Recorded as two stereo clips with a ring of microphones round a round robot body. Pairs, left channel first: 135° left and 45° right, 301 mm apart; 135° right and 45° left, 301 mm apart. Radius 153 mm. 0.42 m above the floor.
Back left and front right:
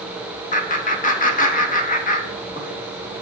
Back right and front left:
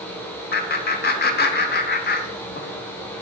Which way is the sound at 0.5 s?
175° right.